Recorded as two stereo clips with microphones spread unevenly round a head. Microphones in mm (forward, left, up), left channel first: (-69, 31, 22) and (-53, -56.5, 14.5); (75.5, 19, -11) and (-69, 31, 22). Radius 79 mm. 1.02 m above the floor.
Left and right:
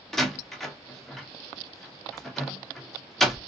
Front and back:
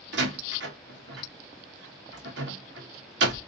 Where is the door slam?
175° right, 1.1 m.